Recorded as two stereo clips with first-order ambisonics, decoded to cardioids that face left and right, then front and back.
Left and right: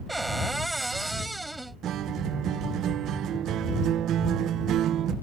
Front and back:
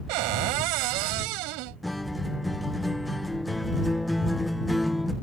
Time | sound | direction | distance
0.1 | a cupboard door | 175° right | ?
1.8 | a guitar | 85° right | ?